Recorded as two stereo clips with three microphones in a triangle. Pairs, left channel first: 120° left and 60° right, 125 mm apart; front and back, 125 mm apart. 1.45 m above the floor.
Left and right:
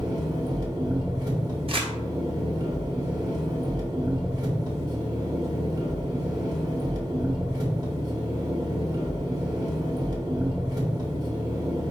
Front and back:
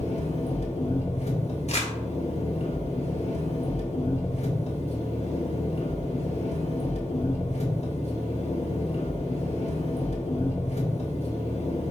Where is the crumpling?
20° right, 1.2 m.